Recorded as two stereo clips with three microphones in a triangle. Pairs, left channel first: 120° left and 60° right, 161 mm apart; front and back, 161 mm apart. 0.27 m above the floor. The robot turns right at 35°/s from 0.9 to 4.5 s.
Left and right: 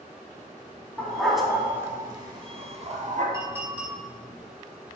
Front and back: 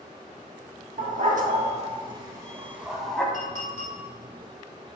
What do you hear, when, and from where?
1.0 s a dog barking: 165° right, 0.5 m; by 3.2 s 85° right, 0.5 m
3.3 s a clink: 5° left, 1.6 m; by 4.0 s 25° left, 1.6 m